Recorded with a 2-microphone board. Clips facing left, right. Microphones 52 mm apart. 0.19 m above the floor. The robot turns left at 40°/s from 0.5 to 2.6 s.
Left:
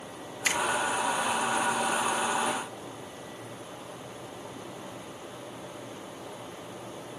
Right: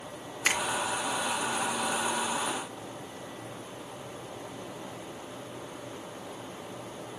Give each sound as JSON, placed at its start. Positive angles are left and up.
{"t": 0.5, "sound": "a finger snap", "side_deg": -35, "distance_m": 2.5}